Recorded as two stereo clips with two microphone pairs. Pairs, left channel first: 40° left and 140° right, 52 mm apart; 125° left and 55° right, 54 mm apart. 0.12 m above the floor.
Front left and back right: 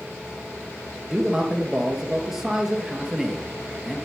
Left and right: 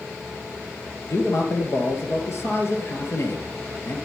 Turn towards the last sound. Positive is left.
turn(degrees=140)